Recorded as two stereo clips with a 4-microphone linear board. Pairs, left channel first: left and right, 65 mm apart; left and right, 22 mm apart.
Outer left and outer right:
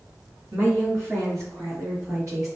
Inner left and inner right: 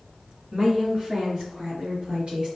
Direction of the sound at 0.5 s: 45° right (ahead or behind).